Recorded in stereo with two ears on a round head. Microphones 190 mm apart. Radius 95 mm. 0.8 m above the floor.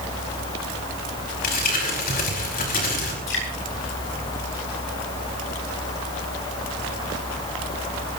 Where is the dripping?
65° left (ahead or behind), 9.5 m.